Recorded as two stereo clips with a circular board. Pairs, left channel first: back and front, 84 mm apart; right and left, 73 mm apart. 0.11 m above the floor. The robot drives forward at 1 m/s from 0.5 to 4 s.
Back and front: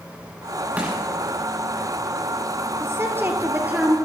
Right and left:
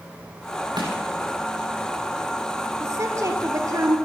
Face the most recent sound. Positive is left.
turn(degrees=75)